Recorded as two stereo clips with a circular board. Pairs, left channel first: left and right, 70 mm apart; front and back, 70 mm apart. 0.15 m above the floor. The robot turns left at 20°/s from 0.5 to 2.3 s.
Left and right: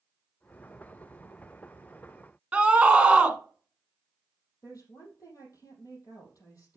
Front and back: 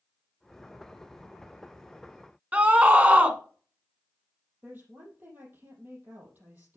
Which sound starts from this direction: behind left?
A woman speaking, at 4.6 s.